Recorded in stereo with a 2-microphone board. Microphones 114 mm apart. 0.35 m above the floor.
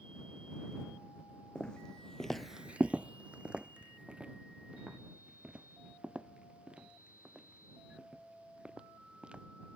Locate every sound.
1.6 s footsteps: 10° left (ahead or behind); by 9.4 s 10° right (ahead or behind)